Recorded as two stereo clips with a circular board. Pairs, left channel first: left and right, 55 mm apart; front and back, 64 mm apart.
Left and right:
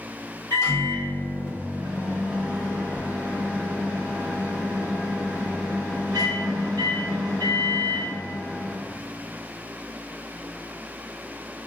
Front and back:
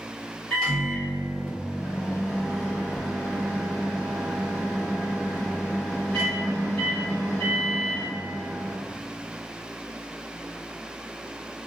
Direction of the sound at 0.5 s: 75° left.